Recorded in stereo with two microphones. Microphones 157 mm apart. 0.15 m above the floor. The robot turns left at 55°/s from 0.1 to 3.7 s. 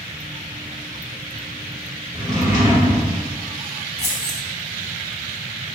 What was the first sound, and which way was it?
A drawer, 15° left.